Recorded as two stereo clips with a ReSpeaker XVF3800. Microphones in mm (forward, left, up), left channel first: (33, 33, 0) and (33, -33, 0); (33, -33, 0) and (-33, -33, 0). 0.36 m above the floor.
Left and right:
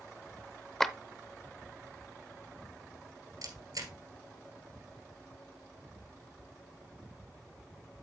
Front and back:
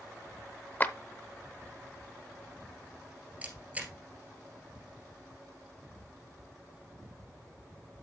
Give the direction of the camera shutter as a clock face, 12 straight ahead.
4 o'clock.